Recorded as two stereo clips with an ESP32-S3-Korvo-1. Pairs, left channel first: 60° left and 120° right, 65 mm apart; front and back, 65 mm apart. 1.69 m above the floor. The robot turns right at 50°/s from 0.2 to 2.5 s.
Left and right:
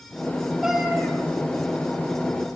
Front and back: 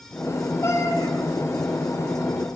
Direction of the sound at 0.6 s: 40° right.